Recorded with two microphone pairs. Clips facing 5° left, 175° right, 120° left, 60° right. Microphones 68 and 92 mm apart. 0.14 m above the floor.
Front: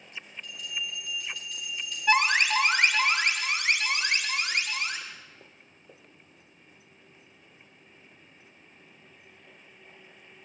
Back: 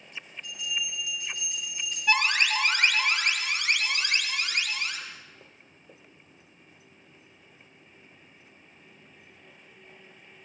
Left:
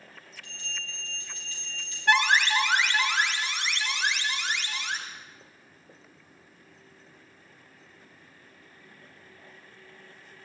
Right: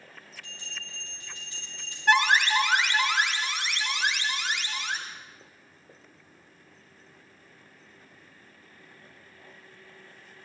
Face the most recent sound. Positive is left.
turn(degrees=10)